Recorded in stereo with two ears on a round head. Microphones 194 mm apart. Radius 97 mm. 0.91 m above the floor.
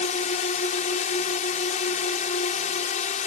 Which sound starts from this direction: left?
A drone, at 0.0 s.